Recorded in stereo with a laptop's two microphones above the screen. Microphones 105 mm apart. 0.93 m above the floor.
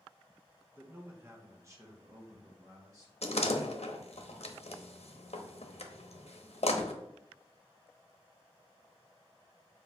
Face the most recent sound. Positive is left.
turn(degrees=80)